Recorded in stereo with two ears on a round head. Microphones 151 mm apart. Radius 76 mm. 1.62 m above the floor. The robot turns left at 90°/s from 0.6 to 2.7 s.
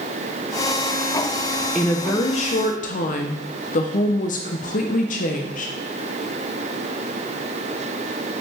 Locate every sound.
1.8 s a woman speaking: straight behind, 0.7 m; by 5.7 s 95° left, 0.7 m